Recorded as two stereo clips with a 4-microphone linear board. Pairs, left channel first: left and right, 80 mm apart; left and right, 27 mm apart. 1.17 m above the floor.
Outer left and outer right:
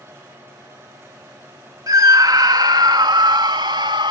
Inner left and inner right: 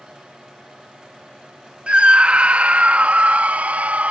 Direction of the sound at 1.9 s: 50° right (ahead or behind).